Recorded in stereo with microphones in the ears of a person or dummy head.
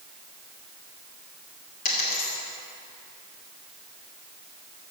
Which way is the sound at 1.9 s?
50° left (ahead or behind).